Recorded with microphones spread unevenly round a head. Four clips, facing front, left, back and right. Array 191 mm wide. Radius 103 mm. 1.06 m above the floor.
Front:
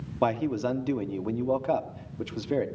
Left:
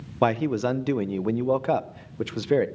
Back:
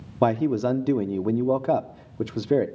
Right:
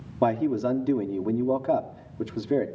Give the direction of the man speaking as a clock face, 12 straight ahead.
7 o'clock.